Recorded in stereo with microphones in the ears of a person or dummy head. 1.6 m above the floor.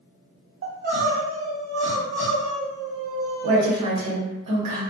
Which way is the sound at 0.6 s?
55° right (ahead or behind).